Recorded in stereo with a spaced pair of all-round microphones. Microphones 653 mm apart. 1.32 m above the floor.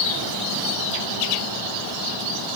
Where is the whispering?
No whispering in this recording.